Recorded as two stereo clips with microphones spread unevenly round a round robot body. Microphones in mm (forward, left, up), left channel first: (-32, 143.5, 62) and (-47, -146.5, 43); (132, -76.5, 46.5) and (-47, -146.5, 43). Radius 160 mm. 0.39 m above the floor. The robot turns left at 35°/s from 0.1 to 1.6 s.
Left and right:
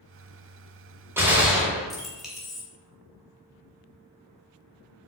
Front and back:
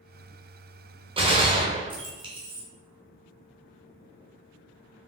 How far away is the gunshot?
About 1.2 m.